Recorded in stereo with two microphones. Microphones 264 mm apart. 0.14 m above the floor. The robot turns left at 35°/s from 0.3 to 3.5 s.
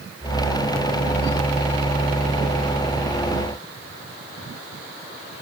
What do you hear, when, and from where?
Only background noise.